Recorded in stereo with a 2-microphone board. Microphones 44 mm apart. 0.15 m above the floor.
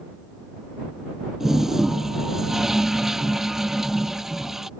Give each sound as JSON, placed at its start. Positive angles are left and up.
{"t": 1.4, "sound": "a toilet flushing", "side_deg": -10}